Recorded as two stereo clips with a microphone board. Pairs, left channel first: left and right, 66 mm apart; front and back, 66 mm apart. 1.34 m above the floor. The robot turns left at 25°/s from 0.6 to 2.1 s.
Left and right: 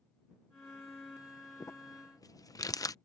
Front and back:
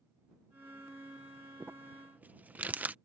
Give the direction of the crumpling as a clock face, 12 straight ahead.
8 o'clock.